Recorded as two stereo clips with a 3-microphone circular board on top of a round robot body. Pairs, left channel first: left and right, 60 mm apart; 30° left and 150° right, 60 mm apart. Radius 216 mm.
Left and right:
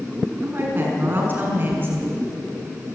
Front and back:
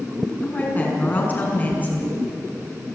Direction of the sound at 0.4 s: 35° right.